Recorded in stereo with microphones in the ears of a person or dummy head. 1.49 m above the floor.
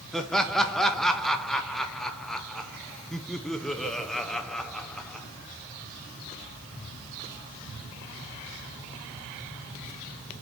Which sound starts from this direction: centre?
Laughter, at 0.1 s.